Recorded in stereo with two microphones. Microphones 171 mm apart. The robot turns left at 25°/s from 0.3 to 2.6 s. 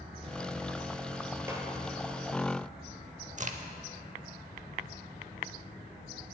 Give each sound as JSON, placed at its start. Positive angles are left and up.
{"t": 1.5, "sound": "a snare drum", "side_deg": -15, "distance_m": 1.8}
{"t": 3.4, "sound": "a crack", "side_deg": -45, "distance_m": 0.6}